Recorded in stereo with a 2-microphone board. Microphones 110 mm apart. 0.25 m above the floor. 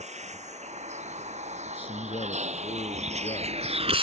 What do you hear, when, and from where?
0.0 s a vehicle: 85° right; by 4.0 s 55° right (ahead or behind)
1.7 s a man speaking: 55° left (ahead or behind)